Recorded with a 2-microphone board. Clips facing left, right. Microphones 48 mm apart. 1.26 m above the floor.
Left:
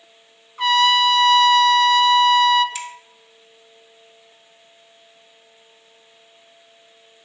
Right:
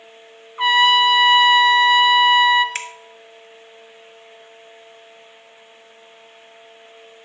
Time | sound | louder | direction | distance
0.6 | a trumpet | right 2 dB | 20° right (ahead or behind) | 0.6 m
2.8 | a finger snap | right 2 dB | 50° right (ahead or behind) | 0.5 m